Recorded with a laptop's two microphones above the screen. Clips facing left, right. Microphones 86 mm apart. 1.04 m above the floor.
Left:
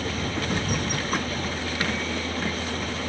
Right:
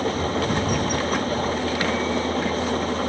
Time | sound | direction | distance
0.0 | an engine running | 35° right (ahead or behind) | ?